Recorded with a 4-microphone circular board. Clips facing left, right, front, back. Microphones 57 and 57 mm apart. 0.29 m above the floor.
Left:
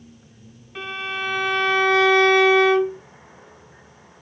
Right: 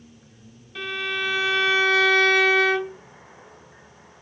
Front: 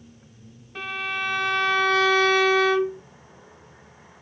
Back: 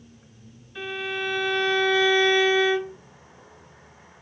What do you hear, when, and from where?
0.8 s a violin: 30° left, 3.5 m